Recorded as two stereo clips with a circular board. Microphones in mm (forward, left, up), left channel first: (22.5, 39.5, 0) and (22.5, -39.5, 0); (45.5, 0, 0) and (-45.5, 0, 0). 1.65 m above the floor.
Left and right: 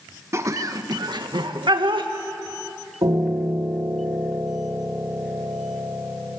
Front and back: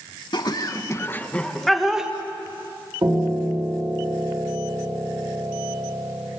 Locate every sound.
0.3 s laughter: 35° right, 2 m; by 2.1 s 100° right, 2.5 m
3.0 s a piano: 125° right, 4.5 m